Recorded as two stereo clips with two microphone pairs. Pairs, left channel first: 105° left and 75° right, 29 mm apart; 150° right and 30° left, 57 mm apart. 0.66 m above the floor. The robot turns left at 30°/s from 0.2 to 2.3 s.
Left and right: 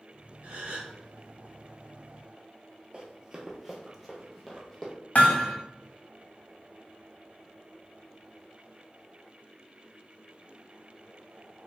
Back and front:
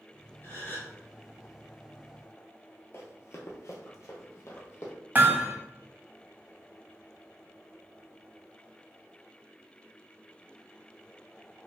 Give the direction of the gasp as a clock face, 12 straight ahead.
3 o'clock.